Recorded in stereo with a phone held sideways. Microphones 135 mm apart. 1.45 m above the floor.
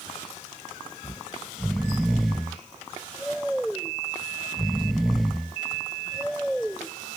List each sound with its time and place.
1.0 s snoring: centre (ahead or behind)